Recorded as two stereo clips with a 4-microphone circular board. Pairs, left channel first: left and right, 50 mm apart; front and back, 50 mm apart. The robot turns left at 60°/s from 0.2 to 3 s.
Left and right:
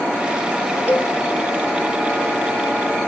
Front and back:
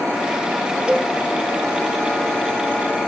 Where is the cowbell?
115° left, 0.7 m; by 1.1 s 100° left, 0.7 m.